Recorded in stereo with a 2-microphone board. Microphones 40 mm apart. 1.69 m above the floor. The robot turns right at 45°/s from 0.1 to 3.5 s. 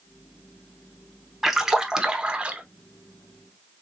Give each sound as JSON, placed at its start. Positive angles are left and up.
{"t": 1.4, "sound": "a splash", "azimuth_deg": -170, "distance_m": 0.8}